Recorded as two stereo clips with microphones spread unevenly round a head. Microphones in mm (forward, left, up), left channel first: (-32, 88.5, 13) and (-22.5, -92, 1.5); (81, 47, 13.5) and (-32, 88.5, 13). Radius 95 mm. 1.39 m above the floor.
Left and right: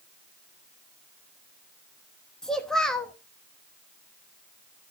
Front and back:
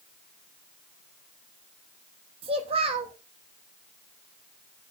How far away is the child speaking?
About 0.9 m.